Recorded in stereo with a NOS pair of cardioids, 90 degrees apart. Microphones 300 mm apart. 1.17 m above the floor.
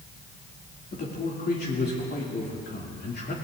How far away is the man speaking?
About 2.5 m.